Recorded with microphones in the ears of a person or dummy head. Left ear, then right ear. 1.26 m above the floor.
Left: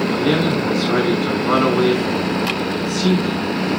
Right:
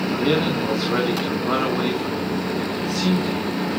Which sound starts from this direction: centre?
A man speaking, at 0.1 s.